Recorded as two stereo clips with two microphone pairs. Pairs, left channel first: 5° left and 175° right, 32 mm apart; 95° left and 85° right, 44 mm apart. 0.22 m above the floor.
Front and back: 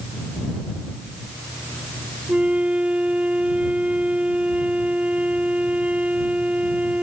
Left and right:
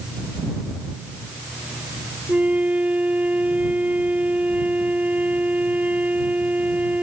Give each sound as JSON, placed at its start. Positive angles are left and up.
{"t": 2.3, "sound": "a flute", "azimuth_deg": -135}